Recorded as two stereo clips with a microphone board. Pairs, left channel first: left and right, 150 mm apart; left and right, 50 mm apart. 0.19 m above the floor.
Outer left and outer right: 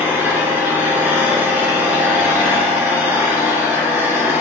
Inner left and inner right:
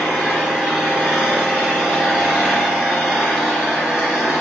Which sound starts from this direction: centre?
An engine running, at 0.0 s.